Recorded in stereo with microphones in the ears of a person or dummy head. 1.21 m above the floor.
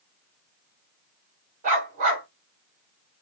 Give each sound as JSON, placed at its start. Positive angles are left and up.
{"t": 1.6, "sound": "a dog barking", "side_deg": -40, "distance_m": 1.5}